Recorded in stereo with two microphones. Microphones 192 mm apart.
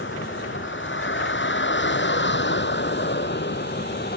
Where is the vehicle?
85° left; by 4.2 s 60° left (ahead or behind).